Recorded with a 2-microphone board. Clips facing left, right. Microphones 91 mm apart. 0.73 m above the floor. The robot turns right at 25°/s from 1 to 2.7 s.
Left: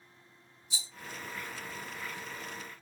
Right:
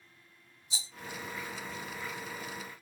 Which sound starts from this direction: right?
A rattle, at 0.7 s.